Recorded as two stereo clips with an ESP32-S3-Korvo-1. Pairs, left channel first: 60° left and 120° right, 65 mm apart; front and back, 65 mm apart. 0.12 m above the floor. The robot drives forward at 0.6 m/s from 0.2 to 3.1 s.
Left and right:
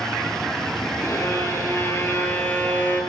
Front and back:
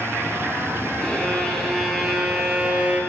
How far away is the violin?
About 2 m.